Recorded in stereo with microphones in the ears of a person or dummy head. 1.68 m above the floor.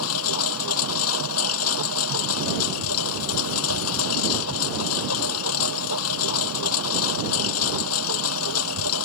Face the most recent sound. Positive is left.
turn(degrees=80)